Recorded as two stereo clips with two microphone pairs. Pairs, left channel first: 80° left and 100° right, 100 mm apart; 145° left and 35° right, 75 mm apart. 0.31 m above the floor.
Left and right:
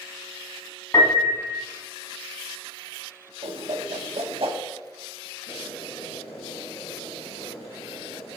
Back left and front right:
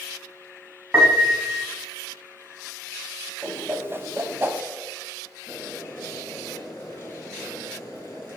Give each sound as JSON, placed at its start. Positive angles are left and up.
{"t": 0.9, "sound": "a piano", "azimuth_deg": 25, "distance_m": 1.1}
{"t": 3.4, "sound": "a whoosh", "azimuth_deg": -90, "distance_m": 0.7}
{"t": 5.5, "sound": "boiling", "azimuth_deg": 85, "distance_m": 2.5}